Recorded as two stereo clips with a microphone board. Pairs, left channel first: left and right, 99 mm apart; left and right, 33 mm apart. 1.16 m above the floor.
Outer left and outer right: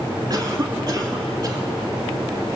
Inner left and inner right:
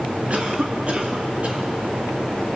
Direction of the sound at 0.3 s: 45° right (ahead or behind).